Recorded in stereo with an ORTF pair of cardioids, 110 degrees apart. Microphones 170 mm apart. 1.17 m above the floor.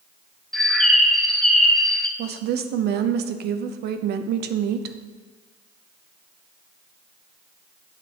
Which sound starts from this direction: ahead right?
A woman speaking, at 2.2 s.